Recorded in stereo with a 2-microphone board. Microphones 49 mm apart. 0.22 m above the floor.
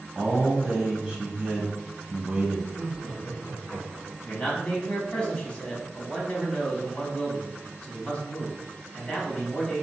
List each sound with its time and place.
0.1 s a man speaking: 15° right (ahead or behind), 1.1 m
2.7 s laughter: 25° left (ahead or behind), 1.8 m
4.2 s a man speaking: 25° left (ahead or behind), 1.2 m